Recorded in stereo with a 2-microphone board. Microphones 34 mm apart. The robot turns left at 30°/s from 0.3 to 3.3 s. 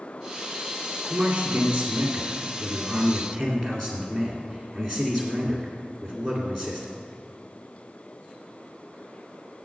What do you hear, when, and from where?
1.1 s a man speaking: 125° right, 1.9 m; by 6.9 s 165° left, 1.9 m